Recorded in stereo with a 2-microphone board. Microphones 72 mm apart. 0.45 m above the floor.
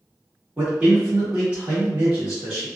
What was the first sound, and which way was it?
A man speaking, 20° right (ahead or behind).